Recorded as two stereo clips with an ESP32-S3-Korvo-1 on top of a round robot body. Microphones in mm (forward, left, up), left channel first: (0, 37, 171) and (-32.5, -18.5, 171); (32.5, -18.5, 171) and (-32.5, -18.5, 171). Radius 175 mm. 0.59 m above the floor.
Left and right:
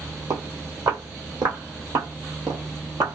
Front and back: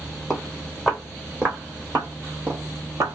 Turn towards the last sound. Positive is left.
turn(degrees=-145)